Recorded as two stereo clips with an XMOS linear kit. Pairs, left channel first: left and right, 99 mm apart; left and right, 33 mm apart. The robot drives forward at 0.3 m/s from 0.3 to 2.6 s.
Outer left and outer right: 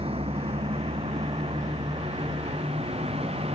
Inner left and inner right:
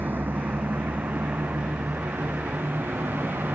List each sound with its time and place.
0.0 s a vehicle: 75° right (ahead or behind); by 3.5 s 85° right